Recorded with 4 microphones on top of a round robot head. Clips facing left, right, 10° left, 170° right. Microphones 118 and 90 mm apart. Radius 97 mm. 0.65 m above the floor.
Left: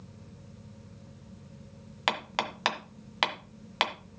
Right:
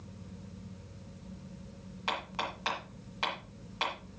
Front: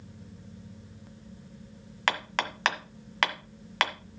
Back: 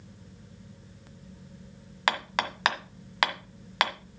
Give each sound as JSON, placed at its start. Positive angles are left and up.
{"t": 2.1, "sound": "hammering", "azimuth_deg": 105, "distance_m": 1.6}